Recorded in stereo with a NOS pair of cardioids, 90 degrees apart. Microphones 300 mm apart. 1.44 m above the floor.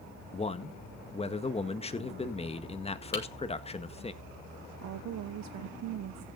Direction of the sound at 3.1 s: 40° left.